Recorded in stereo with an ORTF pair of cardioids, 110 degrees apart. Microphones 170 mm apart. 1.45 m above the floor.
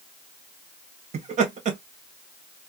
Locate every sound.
1.1 s laughter: 45° right, 1.8 m